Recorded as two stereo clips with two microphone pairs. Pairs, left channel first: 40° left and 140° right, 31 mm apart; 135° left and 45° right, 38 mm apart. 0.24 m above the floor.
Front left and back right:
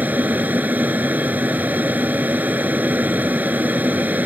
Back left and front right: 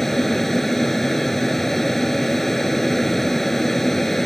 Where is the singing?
I don't hear singing.